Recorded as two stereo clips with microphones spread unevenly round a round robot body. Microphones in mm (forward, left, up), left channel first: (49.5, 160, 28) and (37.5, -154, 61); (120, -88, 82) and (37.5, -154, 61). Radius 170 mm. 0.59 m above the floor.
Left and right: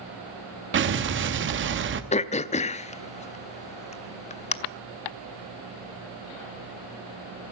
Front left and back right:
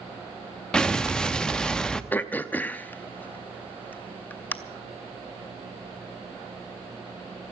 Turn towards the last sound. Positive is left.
turn(degrees=120)